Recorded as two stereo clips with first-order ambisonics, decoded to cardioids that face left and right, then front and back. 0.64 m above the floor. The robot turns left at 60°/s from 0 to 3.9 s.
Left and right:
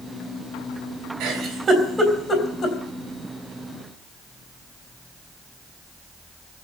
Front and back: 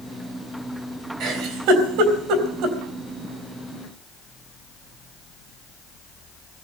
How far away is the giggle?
About 3.5 m.